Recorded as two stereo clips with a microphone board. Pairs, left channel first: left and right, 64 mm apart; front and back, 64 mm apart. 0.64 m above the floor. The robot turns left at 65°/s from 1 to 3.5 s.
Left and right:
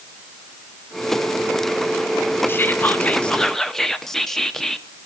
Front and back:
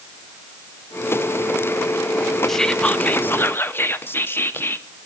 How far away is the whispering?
About 0.7 m.